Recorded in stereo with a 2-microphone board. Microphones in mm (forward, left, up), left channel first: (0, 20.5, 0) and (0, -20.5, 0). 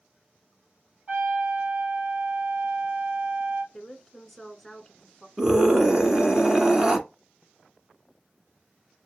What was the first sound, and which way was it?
A trumpet, 25° right (ahead or behind).